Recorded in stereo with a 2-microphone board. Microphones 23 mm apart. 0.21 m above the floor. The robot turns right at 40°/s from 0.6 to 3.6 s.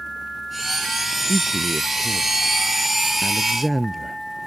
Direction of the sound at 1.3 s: 95° right.